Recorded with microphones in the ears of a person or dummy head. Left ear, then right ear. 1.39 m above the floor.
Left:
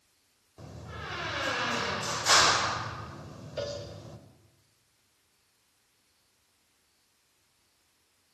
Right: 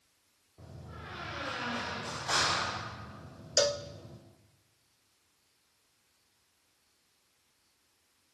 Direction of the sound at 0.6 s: 80° left.